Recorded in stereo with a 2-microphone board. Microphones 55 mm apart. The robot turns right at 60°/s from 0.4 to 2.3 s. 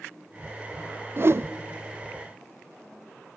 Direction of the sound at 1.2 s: 45° right (ahead or behind).